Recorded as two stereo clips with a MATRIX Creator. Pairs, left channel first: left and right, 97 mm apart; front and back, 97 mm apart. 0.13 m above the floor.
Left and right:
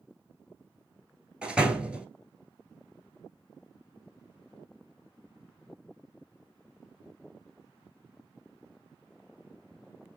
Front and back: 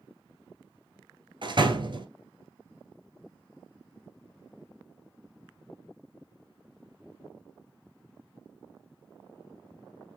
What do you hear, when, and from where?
1.4 s a door slam: 165° right, 1.3 m